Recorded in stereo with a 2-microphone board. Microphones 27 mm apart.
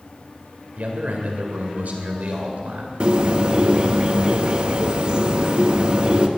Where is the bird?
35° right (ahead or behind), 1.2 m.